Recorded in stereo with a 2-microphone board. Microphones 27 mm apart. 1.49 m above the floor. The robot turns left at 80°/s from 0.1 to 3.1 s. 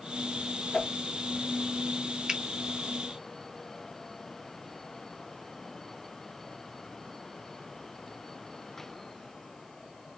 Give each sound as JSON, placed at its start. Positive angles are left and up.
{"t": 0.7, "sound": "a whoosh", "side_deg": 20, "distance_m": 0.6}
{"t": 2.3, "sound": "a finger snap", "side_deg": -25, "distance_m": 0.6}